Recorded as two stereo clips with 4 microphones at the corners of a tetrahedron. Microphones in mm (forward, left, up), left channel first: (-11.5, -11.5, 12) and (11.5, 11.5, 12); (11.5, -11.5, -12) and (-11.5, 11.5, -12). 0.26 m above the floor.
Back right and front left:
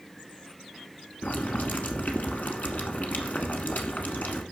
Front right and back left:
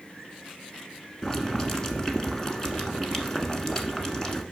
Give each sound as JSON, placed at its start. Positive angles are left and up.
{"t": 1.2, "sound": "boiling", "azimuth_deg": -115, "distance_m": 1.2}